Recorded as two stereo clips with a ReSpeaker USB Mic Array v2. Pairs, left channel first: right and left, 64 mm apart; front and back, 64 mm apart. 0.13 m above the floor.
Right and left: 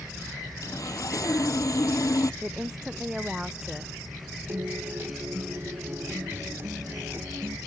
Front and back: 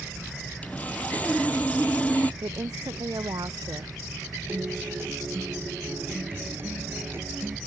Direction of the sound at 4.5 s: 135° left.